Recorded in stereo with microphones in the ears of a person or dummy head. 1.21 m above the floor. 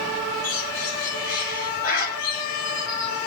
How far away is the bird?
About 8 m.